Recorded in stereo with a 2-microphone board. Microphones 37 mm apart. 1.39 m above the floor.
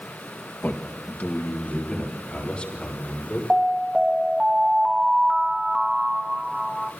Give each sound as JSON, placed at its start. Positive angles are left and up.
{"t": 0.6, "sound": "a man speaking", "side_deg": 60, "distance_m": 2.5}
{"t": 3.5, "sound": "an alarm", "side_deg": -15, "distance_m": 1.2}